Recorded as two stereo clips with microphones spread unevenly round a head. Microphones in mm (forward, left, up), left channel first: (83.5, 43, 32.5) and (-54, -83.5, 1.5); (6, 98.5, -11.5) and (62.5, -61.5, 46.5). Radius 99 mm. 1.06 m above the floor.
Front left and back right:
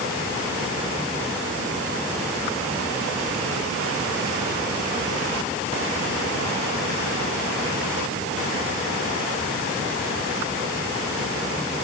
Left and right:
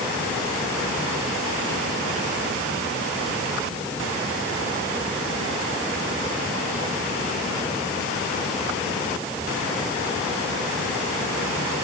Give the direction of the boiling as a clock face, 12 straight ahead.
No boiling in this recording.